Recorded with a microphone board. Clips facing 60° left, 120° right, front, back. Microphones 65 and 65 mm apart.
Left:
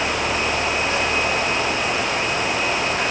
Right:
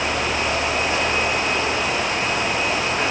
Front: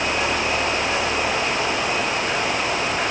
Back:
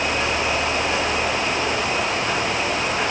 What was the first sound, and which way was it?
Only background noise.